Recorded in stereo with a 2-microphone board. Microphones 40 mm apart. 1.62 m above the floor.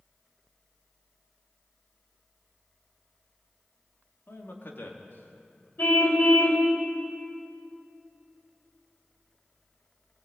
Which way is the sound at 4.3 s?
70° left (ahead or behind).